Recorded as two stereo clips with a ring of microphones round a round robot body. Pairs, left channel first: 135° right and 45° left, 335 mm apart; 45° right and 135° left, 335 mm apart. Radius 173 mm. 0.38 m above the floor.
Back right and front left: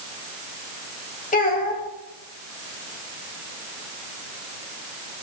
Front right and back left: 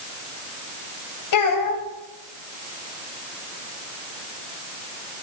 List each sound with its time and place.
1.3 s a child speaking: 70° right, 2 m